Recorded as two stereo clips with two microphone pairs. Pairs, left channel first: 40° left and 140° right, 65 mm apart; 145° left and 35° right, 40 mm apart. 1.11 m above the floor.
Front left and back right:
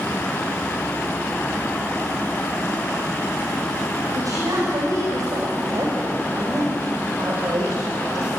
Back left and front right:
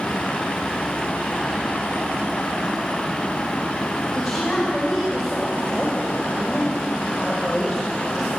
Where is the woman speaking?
130° right, 4.5 m.